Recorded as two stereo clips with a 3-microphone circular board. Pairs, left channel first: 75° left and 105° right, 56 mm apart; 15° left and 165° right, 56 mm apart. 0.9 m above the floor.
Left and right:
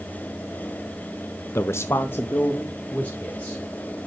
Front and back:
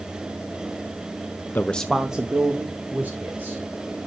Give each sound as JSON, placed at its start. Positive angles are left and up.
{"t": 1.6, "sound": "a man speaking", "azimuth_deg": 55, "distance_m": 0.7}